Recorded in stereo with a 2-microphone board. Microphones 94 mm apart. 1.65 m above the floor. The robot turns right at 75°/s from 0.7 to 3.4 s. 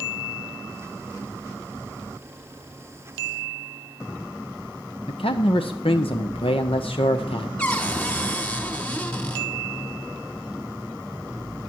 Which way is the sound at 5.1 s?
80° left.